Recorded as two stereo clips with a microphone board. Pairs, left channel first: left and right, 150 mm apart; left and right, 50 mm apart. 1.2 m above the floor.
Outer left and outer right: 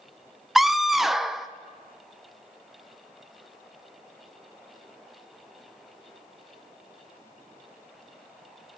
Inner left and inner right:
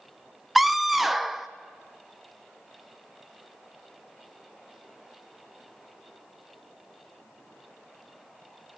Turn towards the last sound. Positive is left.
turn(degrees=0)  # may be behind; listen again after turning